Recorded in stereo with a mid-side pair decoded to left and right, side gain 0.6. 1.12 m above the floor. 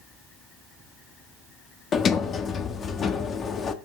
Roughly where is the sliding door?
Ahead left.